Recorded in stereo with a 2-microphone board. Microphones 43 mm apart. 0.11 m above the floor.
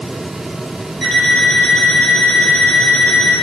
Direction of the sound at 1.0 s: 15° left (ahead or behind).